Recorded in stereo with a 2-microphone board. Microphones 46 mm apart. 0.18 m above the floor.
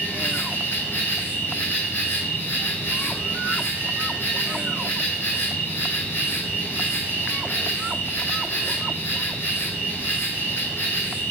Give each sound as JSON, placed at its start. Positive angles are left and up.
{"t": 0.0, "sound": "an insect", "side_deg": 60, "distance_m": 5.0}